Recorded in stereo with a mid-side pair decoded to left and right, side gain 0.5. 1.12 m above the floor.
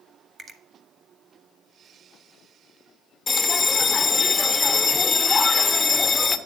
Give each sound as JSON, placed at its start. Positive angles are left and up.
{"t": 0.4, "sound": "a finger snap", "azimuth_deg": -40, "distance_m": 1.2}
{"t": 3.3, "sound": "a bell", "azimuth_deg": 25, "distance_m": 0.8}